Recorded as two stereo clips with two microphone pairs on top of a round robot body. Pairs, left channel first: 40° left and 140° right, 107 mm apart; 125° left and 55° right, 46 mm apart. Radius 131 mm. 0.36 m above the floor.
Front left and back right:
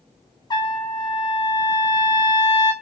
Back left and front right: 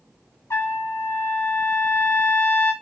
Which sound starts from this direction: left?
A trumpet, at 0.5 s.